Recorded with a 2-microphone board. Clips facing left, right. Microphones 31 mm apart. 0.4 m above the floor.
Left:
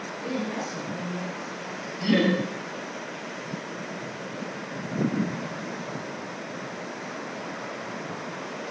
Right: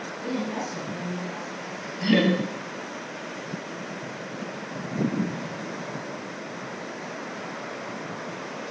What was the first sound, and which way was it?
A woman speaking, 5° right (ahead or behind).